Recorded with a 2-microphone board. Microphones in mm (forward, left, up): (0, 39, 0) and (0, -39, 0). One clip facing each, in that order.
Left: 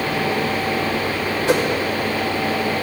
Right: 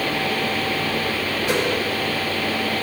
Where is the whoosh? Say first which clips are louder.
Left 5 dB; 65° left (ahead or behind), 2 m.